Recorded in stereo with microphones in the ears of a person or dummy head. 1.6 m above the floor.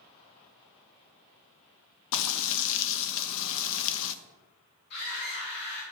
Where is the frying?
75° left (ahead or behind), 0.6 m.